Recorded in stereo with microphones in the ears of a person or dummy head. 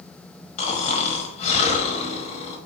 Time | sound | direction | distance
0.6 | snoring | 40° left (ahead or behind) | 1.0 m